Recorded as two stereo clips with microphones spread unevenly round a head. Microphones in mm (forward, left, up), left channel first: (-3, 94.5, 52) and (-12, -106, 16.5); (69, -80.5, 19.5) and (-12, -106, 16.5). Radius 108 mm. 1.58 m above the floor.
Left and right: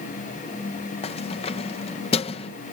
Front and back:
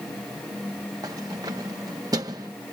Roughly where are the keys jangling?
Behind left.